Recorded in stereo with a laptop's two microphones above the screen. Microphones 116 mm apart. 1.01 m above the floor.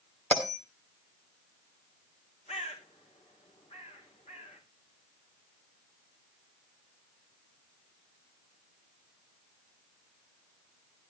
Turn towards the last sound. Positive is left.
turn(degrees=65)  # may be behind; listen again after turning